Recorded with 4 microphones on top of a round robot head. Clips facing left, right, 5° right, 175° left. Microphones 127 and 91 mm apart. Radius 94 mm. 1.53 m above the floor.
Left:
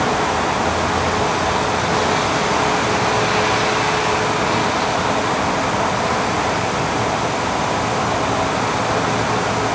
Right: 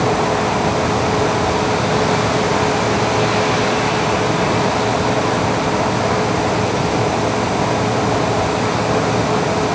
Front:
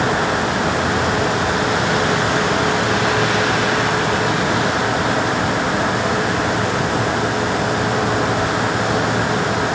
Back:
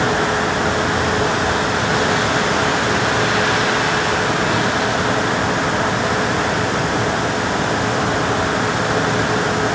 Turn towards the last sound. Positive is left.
No sound to turn to.